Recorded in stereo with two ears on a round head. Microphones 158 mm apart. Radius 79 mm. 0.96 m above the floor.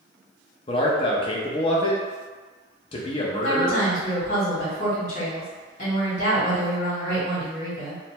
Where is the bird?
I don't hear a bird.